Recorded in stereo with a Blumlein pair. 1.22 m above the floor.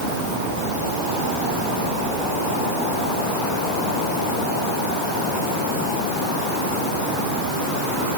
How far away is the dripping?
I don't hear dripping.